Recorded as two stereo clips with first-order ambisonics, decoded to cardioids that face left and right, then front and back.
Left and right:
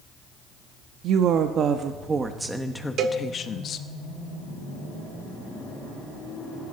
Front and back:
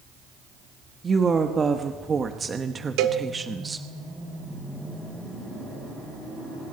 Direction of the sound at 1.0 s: 110° right.